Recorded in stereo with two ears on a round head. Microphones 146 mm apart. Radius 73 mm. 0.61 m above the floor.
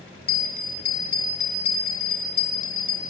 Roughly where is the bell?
Left.